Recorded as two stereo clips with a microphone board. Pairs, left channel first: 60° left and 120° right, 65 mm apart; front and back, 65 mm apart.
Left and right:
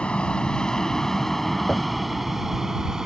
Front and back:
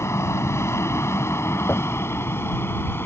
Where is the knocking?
10° right.